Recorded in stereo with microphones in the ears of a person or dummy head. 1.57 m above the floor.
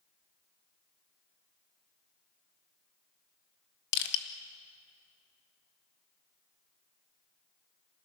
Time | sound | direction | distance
3.9 | crushing | 65° left (ahead or behind) | 1.8 m